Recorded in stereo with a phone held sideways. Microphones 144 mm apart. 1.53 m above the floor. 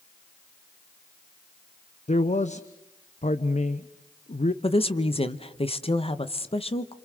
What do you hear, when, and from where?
2.1 s a man speaking: 55° left (ahead or behind), 0.8 m
4.6 s a woman speaking: 40° left (ahead or behind), 1.0 m